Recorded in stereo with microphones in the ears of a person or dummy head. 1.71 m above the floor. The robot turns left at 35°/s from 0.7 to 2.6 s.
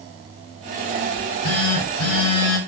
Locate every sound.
1.1 s a phone buzzing: 110° left, 1.2 m; by 2.6 s 60° left, 1.2 m